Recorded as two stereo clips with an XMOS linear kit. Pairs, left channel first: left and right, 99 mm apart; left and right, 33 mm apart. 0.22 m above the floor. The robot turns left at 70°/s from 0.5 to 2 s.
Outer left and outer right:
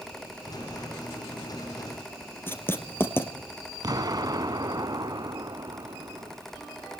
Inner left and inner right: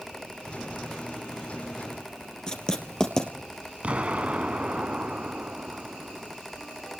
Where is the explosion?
40° right (ahead or behind), 1.0 m.